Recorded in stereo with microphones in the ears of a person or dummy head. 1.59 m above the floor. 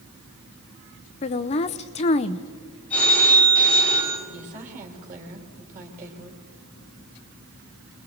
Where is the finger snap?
I don't hear a finger snap.